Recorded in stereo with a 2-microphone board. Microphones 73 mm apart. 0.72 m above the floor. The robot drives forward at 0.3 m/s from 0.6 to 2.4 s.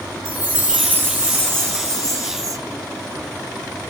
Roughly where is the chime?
Right.